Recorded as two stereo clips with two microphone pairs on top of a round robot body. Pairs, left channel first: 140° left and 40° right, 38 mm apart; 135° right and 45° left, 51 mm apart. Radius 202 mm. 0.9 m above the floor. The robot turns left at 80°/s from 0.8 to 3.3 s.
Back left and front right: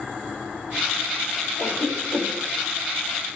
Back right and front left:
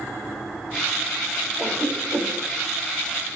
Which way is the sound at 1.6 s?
135° left.